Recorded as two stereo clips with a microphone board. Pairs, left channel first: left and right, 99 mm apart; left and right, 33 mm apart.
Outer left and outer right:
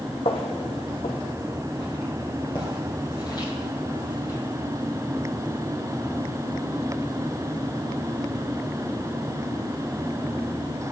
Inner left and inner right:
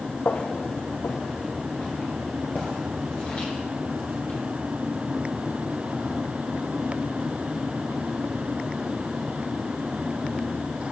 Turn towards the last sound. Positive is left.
turn(degrees=40)  # may be behind; listen again after turning